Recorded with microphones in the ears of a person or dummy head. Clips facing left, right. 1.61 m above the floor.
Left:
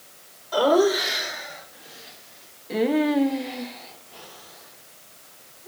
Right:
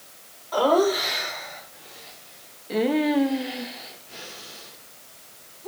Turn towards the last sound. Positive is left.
turn(degrees=-65)  # may be behind; listen again after turning